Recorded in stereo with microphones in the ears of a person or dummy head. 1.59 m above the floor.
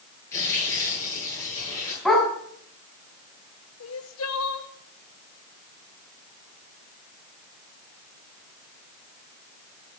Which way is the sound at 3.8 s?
75° left (ahead or behind).